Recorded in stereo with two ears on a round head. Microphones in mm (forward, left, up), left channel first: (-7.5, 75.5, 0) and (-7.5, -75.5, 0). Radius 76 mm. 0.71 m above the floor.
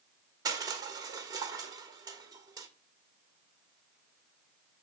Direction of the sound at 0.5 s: 20° right (ahead or behind).